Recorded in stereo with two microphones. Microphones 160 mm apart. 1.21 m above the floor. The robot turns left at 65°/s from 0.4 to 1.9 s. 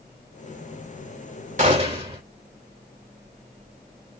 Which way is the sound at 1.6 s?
50° right (ahead or behind).